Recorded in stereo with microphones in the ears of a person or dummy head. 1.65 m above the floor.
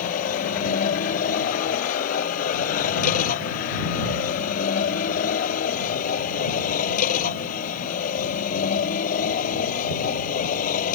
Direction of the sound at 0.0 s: 45° left (ahead or behind).